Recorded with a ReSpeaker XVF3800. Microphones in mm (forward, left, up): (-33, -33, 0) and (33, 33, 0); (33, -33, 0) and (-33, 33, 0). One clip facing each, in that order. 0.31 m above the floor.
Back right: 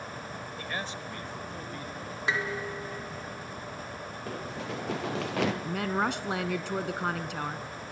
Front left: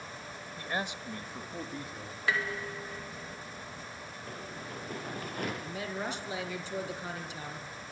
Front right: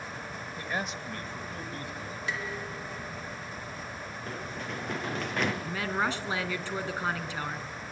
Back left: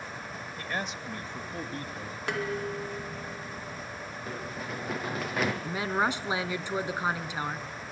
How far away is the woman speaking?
About 3 m.